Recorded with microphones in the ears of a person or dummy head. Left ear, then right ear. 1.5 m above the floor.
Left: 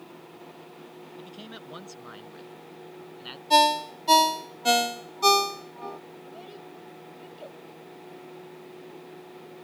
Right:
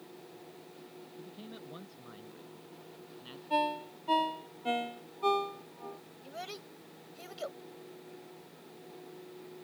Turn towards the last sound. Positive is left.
turn(degrees=-55)  # may be behind; listen again after turning